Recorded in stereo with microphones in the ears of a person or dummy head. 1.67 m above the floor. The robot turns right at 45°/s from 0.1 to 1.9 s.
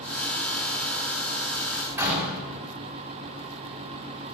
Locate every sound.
1.7 s a door slam: 10° right (ahead or behind), 7 m; by 2.4 s 15° right (ahead or behind), 7 m